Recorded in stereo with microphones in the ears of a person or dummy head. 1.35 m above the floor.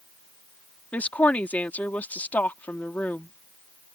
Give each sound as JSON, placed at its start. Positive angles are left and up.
{"t": 0.9, "sound": "a woman speaking", "side_deg": 10}